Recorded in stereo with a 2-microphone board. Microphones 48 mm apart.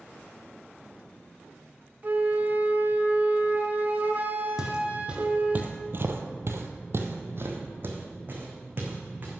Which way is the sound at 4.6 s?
15° right (ahead or behind).